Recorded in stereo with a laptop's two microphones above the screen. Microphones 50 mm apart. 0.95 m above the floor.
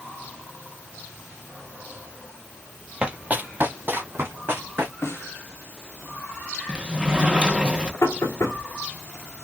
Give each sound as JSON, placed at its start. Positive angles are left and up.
{"t": 3.0, "sound": "running footsteps", "side_deg": -20, "distance_m": 1.0}
{"t": 5.0, "sound": "a snare drum", "side_deg": 60, "distance_m": 1.4}
{"t": 6.7, "sound": "a sliding door", "side_deg": -20, "distance_m": 1.0}
{"t": 8.0, "sound": "knocking", "side_deg": 65, "distance_m": 2.0}